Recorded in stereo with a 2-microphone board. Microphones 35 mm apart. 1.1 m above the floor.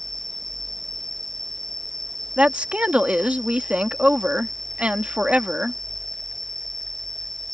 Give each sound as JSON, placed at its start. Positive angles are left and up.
{"t": 0.0, "sound": "an insect", "side_deg": 5}
{"t": 2.4, "sound": "a woman speaking", "side_deg": -40}